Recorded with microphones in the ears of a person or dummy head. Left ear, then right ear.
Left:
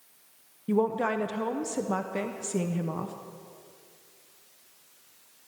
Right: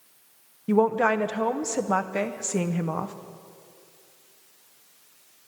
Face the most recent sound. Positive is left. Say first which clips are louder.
# right 5 dB
turn(degrees=-20)  # may be behind; listen again after turning